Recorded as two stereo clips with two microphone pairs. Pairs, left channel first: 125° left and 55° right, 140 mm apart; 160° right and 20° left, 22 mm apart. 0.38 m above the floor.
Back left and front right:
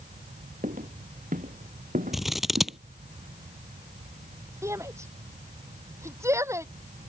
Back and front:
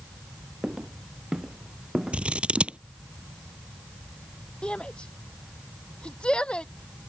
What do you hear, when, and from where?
0.6 s footsteps: 35° right; by 2.8 s 40° right
2.1 s scissors: 30° left
4.6 s a shout: 125° right